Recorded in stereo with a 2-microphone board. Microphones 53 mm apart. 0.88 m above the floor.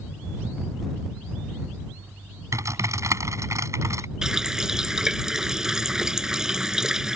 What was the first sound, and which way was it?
Typing on a keyboard, 75° right (ahead or behind).